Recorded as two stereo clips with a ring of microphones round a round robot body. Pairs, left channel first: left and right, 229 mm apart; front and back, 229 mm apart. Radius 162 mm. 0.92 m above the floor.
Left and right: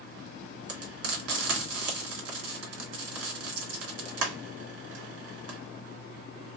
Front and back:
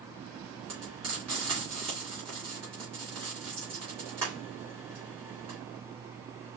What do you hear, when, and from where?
0.7 s frying: 105° right, 2.5 m